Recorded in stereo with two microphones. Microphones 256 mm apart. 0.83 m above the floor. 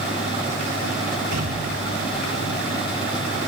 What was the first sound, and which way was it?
An explosion, 80° right.